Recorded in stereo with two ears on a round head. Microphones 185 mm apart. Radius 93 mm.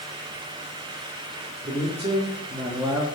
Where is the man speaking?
30° right (ahead or behind), 2 m; by 3.0 s 15° right (ahead or behind), 1.2 m.